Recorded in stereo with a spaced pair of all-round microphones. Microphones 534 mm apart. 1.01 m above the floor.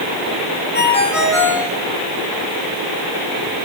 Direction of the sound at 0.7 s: 80° left.